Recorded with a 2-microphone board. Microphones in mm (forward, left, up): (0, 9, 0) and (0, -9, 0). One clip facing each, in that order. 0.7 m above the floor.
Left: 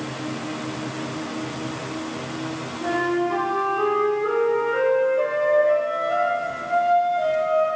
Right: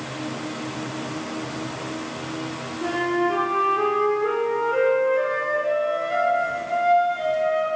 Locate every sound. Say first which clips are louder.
2.8 s a flute: even; 45° right (ahead or behind), 4.5 m